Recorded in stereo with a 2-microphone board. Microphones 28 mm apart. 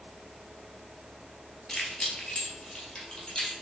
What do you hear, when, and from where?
1.7 s keys jangling: 20° left (ahead or behind), 1.2 m; by 3.5 s 25° left (ahead or behind), 2 m